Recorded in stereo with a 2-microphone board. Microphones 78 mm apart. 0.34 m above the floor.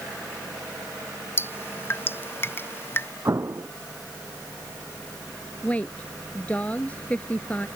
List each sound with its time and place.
1.4 s dripping: 35° left (ahead or behind)
3.2 s an explosion: 40° right (ahead or behind)
5.6 s a woman speaking: 20° left (ahead or behind)